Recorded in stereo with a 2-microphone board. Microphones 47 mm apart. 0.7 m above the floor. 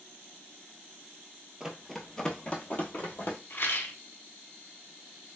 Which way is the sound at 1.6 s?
10° right (ahead or behind).